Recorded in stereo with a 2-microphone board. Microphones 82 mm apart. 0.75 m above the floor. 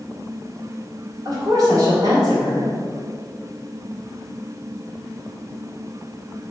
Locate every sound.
1.2 s a woman speaking: 50° right (ahead or behind), 1.8 m